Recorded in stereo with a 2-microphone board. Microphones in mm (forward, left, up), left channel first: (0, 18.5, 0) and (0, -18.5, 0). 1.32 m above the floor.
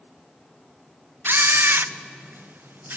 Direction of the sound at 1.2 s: 60° right (ahead or behind).